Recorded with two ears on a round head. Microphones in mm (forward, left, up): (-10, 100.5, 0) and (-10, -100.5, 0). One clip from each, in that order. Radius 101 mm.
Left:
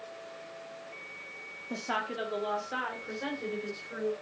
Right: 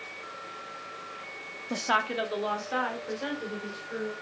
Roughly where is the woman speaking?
Right.